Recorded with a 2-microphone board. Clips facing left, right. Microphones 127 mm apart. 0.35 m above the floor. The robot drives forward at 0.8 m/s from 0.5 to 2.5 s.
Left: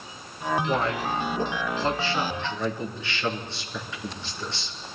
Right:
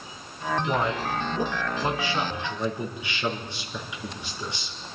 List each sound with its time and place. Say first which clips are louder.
0.7 s a man speaking: even; 20° right (ahead or behind), 3.5 m; by 4.8 s 15° right (ahead or behind), 4.5 m